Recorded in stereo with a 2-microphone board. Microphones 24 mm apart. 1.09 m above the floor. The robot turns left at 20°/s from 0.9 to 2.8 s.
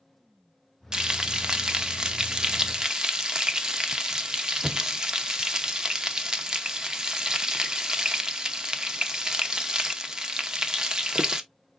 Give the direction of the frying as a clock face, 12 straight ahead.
2 o'clock.